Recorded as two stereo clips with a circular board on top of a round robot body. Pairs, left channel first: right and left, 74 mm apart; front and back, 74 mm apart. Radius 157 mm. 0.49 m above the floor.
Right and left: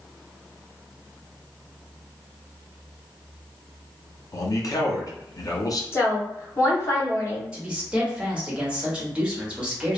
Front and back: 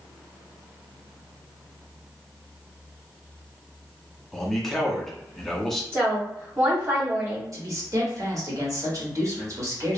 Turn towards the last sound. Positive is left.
turn(degrees=165)